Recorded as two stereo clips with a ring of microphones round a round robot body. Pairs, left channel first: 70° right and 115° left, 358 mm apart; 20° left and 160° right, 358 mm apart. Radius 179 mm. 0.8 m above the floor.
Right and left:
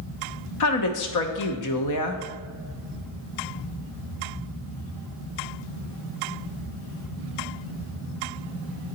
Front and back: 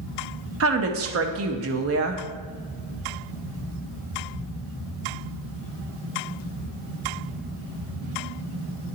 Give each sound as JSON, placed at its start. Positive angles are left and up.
{"t": 0.6, "sound": "a woman speaking", "azimuth_deg": -105, "distance_m": 0.9}